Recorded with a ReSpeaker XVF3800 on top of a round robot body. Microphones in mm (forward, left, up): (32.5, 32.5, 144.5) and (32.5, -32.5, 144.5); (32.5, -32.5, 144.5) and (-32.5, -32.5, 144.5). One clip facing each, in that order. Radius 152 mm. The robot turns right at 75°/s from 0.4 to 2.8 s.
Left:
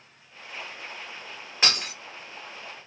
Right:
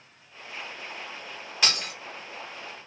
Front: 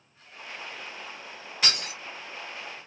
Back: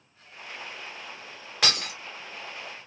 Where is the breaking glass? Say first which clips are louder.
Left 1 dB, back 2 dB; 150° left, 1.8 m; by 1.9 s 175° left, 1.8 m.